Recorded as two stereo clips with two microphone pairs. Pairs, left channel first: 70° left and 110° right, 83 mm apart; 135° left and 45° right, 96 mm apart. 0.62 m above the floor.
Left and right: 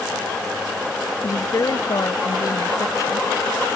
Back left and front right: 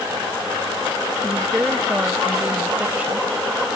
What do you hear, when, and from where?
1.2 s a woman speaking: 30° left